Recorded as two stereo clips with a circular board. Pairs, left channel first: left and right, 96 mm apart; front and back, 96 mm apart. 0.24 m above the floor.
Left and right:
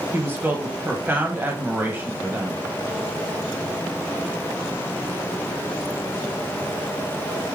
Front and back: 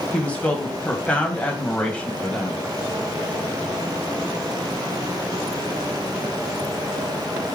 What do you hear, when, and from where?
0.1 s a woman speaking: 55° right, 1.2 m